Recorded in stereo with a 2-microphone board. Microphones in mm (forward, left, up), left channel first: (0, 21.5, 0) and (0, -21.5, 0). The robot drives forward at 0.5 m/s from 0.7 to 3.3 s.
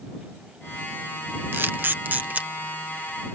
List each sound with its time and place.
1.5 s a camera shutter: 55° right (ahead or behind); by 2.5 s 40° right (ahead or behind)